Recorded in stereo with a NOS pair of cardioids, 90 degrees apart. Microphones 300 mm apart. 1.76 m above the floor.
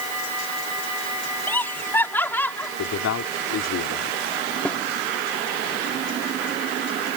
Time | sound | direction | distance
1.5 | laughter | 5° left | ?
2.8 | a man speaking | 55° left | ?
4.7 | a snare drum | 5° left | ?